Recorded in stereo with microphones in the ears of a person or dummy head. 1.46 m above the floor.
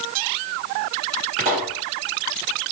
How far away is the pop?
About 2.0 m.